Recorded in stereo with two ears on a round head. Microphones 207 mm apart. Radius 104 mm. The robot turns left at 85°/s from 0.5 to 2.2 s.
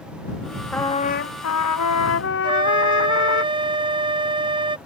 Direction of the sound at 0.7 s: 175° left.